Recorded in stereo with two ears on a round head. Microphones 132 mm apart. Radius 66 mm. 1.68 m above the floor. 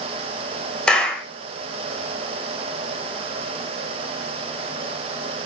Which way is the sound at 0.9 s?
5° left (ahead or behind).